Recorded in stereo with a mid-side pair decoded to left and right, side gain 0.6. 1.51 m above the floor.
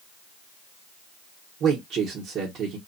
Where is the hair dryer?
I don't hear a hair dryer.